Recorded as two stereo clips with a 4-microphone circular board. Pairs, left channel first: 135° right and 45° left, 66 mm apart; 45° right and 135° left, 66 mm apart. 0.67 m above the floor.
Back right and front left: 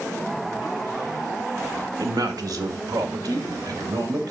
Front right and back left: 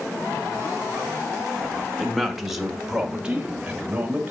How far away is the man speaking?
About 1.3 m.